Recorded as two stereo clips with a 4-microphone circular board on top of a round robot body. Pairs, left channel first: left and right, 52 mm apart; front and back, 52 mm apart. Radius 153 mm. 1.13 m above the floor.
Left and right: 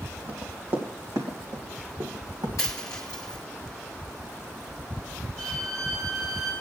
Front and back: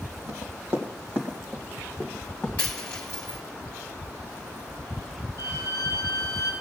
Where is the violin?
Straight behind, 5.5 m.